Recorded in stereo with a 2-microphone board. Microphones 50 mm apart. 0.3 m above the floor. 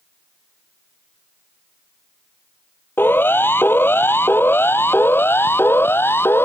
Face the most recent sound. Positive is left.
turn(degrees=50)  # may be behind; listen again after turning